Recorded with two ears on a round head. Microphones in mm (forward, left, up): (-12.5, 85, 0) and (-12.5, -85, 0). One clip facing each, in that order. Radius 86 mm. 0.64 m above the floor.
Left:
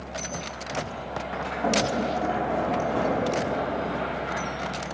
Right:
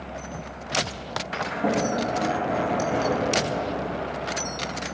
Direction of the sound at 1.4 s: 20° right (ahead or behind).